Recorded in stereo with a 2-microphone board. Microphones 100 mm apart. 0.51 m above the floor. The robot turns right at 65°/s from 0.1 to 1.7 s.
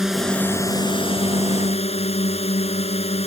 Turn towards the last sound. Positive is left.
turn(degrees=100)